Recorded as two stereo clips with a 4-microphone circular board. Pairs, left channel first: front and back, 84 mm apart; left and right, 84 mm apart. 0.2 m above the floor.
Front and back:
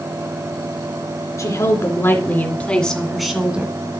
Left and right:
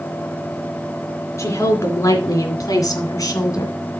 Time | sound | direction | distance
1.4 | a woman speaking | 40° left | 3 m